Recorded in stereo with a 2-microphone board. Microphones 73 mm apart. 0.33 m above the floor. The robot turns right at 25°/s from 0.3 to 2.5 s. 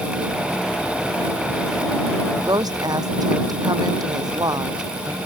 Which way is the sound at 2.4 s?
65° right (ahead or behind).